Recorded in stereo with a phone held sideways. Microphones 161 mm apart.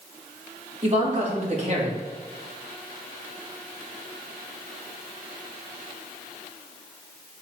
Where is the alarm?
I don't hear an alarm.